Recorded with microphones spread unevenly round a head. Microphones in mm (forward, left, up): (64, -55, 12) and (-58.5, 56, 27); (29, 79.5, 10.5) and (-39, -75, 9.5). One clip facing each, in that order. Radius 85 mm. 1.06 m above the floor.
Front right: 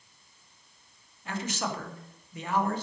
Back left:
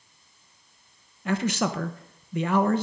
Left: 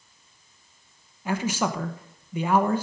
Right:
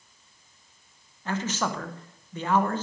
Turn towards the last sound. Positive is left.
turn(degrees=145)